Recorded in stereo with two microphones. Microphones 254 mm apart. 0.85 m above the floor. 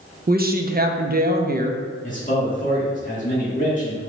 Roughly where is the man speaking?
Left.